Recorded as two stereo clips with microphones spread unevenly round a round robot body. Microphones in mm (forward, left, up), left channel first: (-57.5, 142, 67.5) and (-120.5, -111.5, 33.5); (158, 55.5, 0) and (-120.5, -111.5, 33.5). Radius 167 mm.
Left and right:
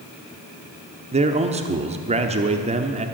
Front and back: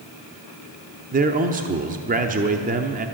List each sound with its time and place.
1.1 s a man speaking: 95° right, 0.9 m